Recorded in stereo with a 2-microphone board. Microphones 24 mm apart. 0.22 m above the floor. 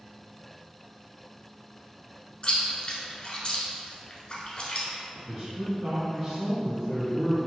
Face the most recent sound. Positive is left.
turn(degrees=15)  # may be behind; listen again after turning